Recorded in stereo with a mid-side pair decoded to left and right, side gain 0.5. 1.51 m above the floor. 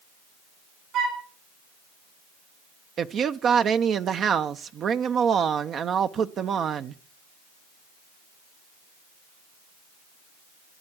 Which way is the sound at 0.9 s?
70° right.